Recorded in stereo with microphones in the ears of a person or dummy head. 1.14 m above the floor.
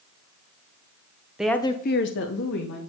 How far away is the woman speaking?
About 0.7 m.